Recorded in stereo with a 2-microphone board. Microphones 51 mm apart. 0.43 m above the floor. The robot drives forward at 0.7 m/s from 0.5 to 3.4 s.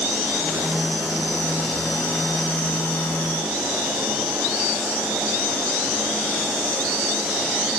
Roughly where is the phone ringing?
No phone ringing in this recording.